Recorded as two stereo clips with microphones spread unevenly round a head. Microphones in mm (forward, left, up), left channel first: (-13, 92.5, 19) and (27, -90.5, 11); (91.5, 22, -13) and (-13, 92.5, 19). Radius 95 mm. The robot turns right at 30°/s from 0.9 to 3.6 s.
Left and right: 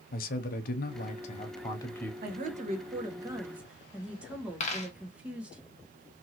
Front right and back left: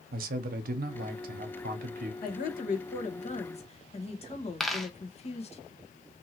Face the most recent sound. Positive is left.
turn(degrees=70)